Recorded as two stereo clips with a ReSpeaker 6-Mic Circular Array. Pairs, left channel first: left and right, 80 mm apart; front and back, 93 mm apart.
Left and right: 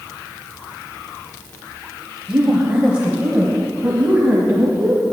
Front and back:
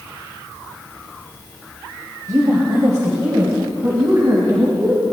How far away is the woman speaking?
About 1.7 m.